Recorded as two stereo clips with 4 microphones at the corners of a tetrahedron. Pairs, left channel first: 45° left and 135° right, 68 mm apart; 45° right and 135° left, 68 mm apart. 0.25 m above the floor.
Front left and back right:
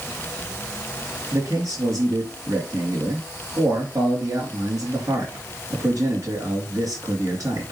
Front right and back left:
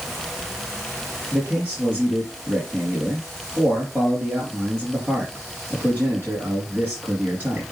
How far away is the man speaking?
About 4 m.